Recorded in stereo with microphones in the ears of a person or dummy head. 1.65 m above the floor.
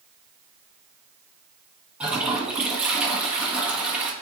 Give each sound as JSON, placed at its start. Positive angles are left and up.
{"t": 2.0, "sound": "a toilet flushing", "side_deg": -5, "distance_m": 1.5}